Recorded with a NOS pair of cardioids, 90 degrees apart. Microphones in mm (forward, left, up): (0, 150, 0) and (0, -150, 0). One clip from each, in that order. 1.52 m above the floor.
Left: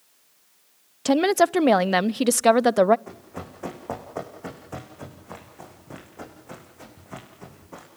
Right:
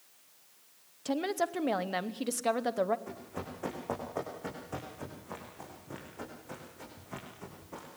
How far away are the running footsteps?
About 7 m.